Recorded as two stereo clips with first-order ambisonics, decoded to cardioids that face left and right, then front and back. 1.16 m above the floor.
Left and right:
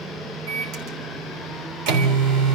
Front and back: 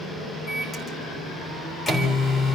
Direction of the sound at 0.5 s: 75° right.